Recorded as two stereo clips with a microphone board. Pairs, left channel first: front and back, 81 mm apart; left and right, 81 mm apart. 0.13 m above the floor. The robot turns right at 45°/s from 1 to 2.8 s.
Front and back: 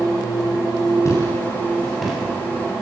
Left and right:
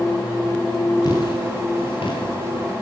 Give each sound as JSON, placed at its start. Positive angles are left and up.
{"t": 1.1, "sound": "footsteps", "azimuth_deg": 50, "distance_m": 10.0}